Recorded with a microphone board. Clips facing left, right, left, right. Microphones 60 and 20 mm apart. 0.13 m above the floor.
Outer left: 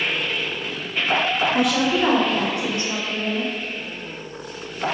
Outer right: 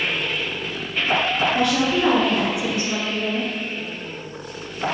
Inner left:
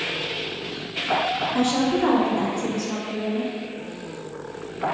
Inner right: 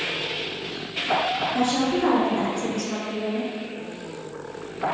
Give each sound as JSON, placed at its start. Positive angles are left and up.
{"t": 1.5, "sound": "a woman speaking", "side_deg": 10, "distance_m": 1.5}